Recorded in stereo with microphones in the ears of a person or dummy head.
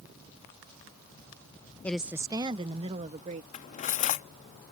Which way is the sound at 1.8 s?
10° left (ahead or behind).